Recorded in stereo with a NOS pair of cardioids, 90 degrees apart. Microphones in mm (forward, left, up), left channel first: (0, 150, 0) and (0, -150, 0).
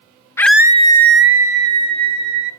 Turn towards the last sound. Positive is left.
turn(degrees=-65)